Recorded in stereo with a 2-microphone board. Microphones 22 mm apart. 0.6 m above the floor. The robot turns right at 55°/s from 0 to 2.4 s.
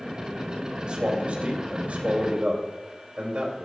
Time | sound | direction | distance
0.8 | a man speaking | 140° right | 3 m